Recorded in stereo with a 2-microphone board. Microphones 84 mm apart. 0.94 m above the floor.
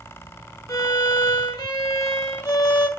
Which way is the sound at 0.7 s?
55° left (ahead or behind).